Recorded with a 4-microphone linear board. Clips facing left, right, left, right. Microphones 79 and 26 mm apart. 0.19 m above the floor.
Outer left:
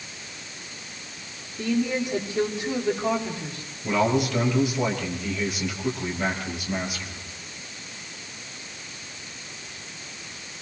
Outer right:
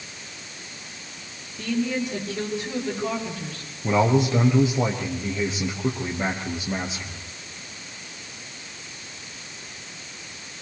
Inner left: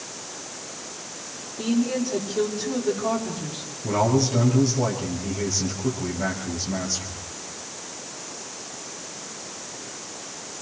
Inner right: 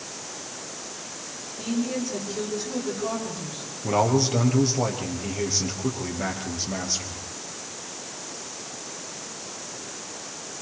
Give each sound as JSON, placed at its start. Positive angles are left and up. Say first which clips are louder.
{"t": 1.6, "sound": "a woman speaking", "louder": "outer left 1 dB, inner left 4 dB", "side_deg": 15, "distance_m": 7.5}
{"t": 3.8, "sound": "a man speaking", "louder": "outer right 2 dB, even", "side_deg": -25, "distance_m": 5.0}